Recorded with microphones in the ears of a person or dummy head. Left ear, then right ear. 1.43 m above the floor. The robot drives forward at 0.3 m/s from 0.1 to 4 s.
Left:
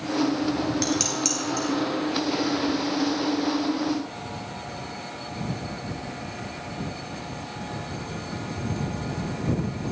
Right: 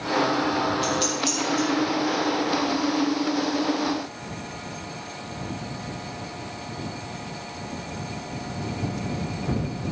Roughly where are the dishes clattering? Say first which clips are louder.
Right 1 dB; left.